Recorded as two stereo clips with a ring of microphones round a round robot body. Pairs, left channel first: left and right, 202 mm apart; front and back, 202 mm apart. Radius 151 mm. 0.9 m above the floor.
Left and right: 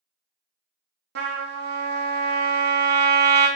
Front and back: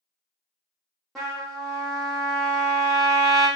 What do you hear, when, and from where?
1.1 s a trumpet: 90° right, 0.5 m